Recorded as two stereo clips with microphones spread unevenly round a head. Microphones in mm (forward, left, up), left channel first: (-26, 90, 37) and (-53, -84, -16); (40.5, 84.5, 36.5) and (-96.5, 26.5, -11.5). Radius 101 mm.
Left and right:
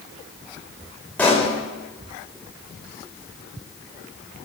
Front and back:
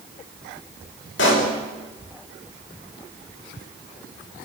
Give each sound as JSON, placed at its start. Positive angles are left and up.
{"t": 1.2, "sound": "a pop", "azimuth_deg": -5, "distance_m": 5.5}